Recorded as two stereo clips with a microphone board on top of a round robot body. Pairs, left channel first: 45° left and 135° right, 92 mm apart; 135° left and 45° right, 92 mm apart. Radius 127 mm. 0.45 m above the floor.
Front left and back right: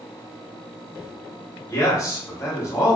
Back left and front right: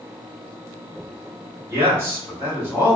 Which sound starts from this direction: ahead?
A man speaking, at 1.7 s.